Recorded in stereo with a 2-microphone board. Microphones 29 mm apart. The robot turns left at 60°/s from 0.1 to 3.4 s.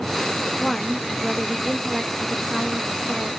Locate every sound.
0.6 s a woman speaking: 30° left, 0.7 m; by 3.3 s 135° right, 0.7 m